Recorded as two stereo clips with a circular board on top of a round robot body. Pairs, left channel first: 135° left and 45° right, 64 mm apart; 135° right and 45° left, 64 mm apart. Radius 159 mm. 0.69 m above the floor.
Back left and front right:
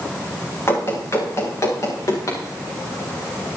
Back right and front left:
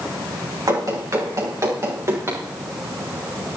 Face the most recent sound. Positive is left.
turn(degrees=100)